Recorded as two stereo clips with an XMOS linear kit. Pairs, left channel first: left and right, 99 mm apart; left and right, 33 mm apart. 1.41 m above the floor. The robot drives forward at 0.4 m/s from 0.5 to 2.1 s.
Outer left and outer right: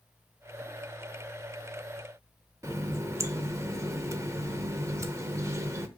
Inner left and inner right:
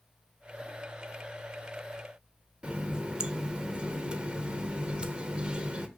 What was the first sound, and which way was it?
A running tap, 30° right (ahead or behind).